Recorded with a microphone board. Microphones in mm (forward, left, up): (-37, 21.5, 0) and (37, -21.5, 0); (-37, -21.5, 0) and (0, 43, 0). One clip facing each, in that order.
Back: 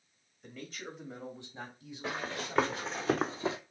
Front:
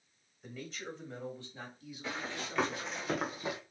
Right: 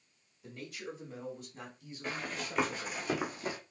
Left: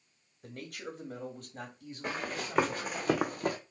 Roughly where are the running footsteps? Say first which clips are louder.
Back 3 dB, left 3 dB; left.